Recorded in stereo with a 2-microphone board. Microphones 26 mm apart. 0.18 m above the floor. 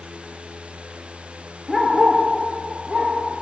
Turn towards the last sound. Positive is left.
turn(degrees=-15)  # may be behind; listen again after turning